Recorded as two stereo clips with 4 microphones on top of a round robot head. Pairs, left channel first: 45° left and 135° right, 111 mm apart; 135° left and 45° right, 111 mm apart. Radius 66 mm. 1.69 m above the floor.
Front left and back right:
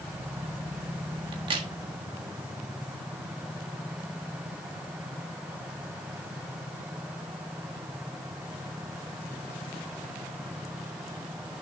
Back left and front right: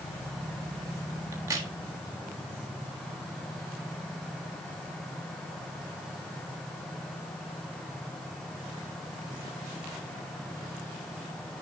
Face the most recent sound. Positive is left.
turn(degrees=-105)